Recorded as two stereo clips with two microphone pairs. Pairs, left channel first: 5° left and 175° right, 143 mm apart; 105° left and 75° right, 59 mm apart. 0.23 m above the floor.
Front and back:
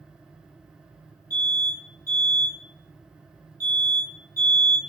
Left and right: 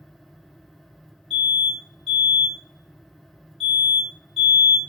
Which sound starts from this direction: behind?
An alarm, at 1.3 s.